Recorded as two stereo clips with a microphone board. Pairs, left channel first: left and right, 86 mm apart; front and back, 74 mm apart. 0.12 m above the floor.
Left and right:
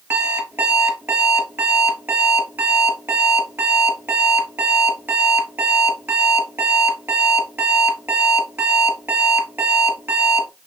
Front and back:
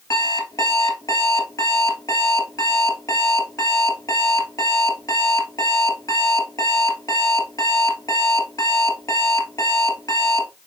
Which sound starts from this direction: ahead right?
An alarm clock, at 0.1 s.